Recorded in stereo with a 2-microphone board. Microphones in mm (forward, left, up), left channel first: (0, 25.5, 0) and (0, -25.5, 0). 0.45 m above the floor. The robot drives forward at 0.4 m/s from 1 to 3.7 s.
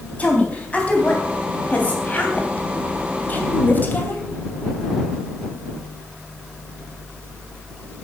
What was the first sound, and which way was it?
A woman speaking, 25° left (ahead or behind).